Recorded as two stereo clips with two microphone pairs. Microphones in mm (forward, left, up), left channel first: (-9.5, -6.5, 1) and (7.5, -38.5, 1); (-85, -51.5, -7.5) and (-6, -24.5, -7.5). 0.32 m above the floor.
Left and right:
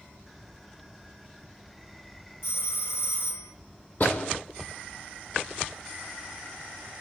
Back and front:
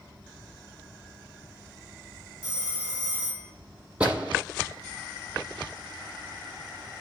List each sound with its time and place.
2.4 s a phone ringing: 95° left, 4 m
4.0 s a door slam: 90° left, 9 m